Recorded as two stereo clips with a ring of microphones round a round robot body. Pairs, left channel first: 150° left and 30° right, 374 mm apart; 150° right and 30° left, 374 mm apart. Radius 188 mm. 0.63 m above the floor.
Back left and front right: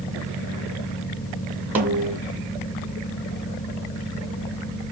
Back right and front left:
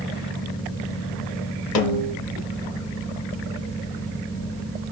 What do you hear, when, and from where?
1.8 s a snare drum: 115° right, 1.6 m